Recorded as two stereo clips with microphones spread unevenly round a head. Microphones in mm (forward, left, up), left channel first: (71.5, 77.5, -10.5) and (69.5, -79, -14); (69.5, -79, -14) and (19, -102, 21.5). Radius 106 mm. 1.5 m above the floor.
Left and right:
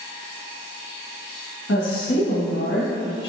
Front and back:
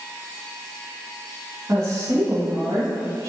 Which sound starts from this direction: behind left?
A woman speaking, at 1.7 s.